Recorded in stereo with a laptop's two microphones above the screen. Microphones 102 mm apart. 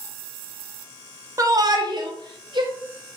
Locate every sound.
1.4 s a shout: 30° right (ahead or behind), 0.5 m; by 2.7 s 50° right (ahead or behind), 1.0 m